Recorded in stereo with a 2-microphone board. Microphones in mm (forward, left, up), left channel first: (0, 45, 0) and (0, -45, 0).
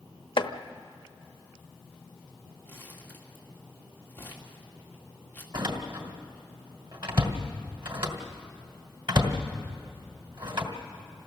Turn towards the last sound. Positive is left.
turn(degrees=-55)  # may be behind; listen again after turning